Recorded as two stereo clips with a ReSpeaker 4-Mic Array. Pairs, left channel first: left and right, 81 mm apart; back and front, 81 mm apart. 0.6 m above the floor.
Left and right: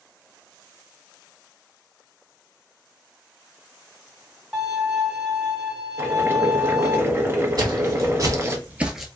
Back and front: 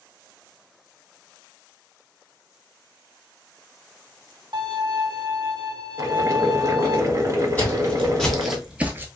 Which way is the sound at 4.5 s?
10° right.